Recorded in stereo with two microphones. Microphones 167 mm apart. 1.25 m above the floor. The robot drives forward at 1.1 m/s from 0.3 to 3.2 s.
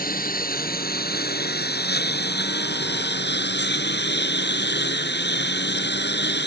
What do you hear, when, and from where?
0.0 s a lawn mower: 55° left (ahead or behind); by 6.5 s 80° left